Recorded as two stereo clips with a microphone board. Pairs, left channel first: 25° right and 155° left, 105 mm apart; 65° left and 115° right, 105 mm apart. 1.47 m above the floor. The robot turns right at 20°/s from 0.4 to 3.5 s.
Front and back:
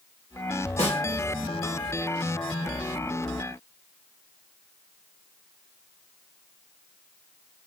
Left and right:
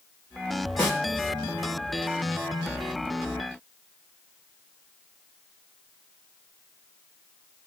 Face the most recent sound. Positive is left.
turn(degrees=45)